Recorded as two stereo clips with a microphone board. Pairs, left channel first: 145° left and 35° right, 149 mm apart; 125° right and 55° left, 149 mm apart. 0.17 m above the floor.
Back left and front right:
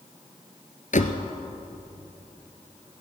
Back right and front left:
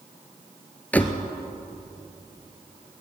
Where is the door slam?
155° left, 1.6 m.